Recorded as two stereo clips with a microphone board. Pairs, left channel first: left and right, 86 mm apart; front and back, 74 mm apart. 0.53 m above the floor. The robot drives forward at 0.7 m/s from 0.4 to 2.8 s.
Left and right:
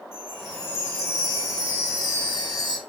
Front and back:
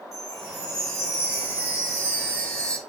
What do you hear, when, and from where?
0.1 s a chime: 30° left, 2.5 m; by 2.8 s 75° left, 1.6 m